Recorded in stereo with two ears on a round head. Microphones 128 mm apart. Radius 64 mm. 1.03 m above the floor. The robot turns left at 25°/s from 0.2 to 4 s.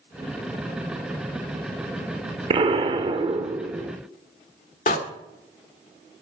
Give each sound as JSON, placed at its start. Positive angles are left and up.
{"t": 2.5, "sound": "an explosion", "azimuth_deg": -110, "distance_m": 0.8}
{"t": 4.9, "sound": "a door slam", "side_deg": 55, "distance_m": 1.9}